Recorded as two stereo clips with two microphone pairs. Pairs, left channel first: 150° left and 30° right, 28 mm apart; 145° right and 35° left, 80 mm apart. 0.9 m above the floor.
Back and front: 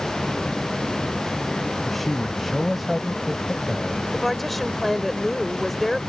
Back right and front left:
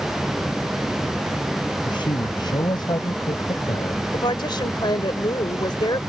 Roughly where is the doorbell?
No doorbell in this recording.